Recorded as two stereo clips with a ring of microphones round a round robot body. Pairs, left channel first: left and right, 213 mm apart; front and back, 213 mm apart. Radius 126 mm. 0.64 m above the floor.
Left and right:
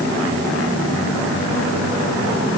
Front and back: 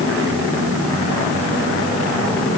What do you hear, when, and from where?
Only background noise.